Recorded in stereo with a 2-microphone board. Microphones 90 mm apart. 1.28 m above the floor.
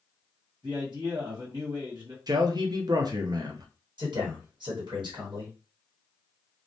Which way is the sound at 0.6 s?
55° right (ahead or behind).